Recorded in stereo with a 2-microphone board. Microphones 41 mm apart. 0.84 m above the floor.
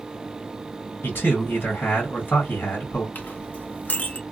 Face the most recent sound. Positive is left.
turn(degrees=45)  # may be behind; listen again after turning